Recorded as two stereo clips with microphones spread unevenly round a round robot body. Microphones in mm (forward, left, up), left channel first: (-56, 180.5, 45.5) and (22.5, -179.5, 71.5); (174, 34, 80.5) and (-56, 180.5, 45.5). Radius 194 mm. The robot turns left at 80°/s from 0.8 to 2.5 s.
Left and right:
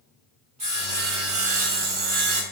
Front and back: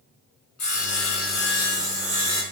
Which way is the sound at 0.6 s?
5° right.